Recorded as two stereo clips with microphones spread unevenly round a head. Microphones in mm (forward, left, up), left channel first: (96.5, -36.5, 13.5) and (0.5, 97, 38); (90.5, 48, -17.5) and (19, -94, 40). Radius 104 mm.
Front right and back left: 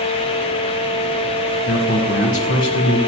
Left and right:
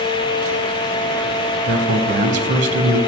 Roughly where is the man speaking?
Right.